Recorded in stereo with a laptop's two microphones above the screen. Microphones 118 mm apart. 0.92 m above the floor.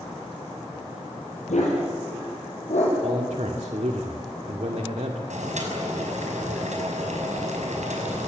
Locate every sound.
1.5 s a dog barking: 80° left, 9 m; by 4.0 s 75° left (ahead or behind), 11 m
3.0 s a man speaking: 75° right (ahead or behind), 1.9 m
5.3 s boiling: 85° right, 5.5 m